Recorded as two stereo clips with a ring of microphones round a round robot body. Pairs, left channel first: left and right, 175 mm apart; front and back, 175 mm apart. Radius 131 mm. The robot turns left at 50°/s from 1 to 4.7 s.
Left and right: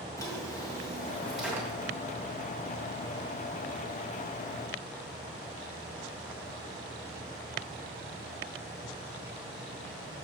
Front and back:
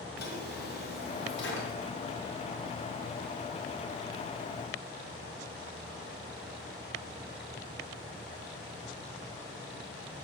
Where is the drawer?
20° left, 2.5 m; by 1.9 s 30° right, 2.5 m.